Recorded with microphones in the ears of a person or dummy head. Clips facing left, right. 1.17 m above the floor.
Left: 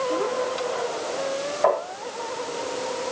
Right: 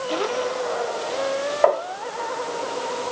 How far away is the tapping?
About 1.5 m.